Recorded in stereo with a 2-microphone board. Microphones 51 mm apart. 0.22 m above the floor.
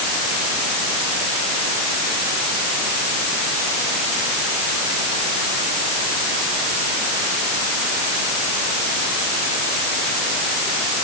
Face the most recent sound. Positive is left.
No sound to turn to.